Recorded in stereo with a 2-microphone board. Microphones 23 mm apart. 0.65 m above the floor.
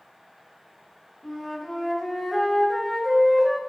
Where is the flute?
5° left (ahead or behind), 1.1 m.